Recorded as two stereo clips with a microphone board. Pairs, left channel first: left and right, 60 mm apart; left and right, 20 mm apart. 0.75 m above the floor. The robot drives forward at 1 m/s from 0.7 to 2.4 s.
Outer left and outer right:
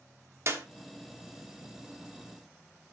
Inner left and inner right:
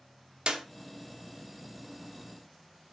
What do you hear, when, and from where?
0.5 s a clap: 50° right (ahead or behind), 1.0 m